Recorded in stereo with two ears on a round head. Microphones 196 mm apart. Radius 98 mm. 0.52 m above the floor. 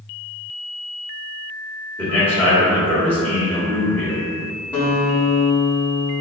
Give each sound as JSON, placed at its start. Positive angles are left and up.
{"t": 2.0, "sound": "a man speaking", "side_deg": 10, "distance_m": 1.1}
{"t": 4.7, "sound": "a guitar", "side_deg": 5, "distance_m": 1.2}